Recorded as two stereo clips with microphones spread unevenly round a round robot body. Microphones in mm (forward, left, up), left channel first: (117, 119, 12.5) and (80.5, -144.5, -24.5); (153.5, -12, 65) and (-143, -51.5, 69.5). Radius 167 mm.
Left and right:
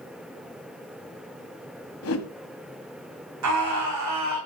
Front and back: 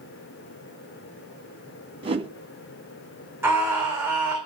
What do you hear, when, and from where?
2.0 s a whoosh: 120° left, 1.5 m
3.4 s a scream: 90° right, 3.5 m